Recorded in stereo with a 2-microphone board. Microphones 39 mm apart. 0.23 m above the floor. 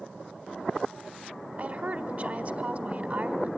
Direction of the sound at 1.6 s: 45° right (ahead or behind).